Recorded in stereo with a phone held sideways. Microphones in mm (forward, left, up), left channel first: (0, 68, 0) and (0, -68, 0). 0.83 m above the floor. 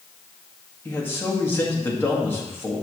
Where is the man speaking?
15° left (ahead or behind), 1.6 m.